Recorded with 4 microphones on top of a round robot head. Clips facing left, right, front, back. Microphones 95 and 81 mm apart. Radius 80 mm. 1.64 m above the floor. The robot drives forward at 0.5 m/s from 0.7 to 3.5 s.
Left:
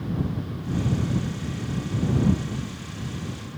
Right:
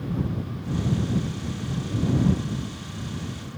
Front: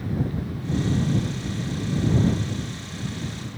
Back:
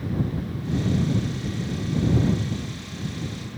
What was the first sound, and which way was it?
Only background noise.